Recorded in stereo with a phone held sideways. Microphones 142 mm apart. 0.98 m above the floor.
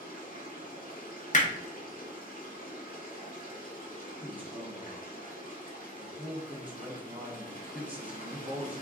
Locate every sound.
0.0 s running water: 70° left (ahead or behind), 1.7 m
1.3 s hammering: 60° left (ahead or behind), 0.9 m
4.2 s a man speaking: 10° right (ahead or behind), 1.6 m